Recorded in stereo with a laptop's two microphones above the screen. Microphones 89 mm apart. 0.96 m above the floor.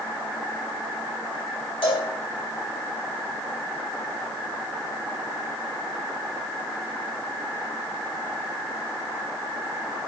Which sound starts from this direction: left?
A cowbell, at 1.8 s.